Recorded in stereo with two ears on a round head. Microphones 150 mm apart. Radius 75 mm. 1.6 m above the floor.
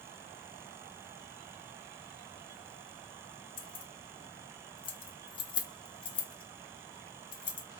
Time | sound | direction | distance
3.6 | keys jangling | 30° left (ahead or behind) | 0.7 m